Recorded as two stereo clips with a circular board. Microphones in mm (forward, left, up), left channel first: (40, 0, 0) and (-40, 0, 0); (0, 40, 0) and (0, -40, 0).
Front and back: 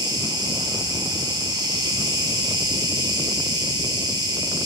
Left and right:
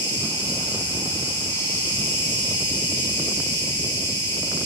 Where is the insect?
155° left, 4.5 m.